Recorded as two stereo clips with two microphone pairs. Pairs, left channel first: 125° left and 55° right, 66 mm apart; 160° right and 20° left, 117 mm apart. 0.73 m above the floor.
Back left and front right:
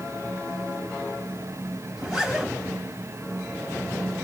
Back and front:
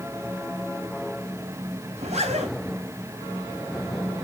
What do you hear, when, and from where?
1.9 s a zipper: 25° left, 3.5 m